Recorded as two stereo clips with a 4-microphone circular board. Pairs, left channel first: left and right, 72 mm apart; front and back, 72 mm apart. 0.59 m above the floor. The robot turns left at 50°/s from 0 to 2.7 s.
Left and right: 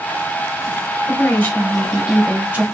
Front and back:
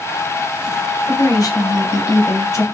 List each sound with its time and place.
1.1 s a woman speaking: 45° left, 1.2 m; by 2.6 s 35° right, 1.2 m